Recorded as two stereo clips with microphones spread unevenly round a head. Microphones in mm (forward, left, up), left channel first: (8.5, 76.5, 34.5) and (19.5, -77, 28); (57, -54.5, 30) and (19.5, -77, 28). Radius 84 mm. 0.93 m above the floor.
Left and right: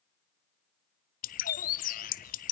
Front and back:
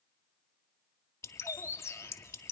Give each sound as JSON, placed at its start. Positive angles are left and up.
{"t": 1.2, "sound": "a bird", "azimuth_deg": 65, "distance_m": 0.5}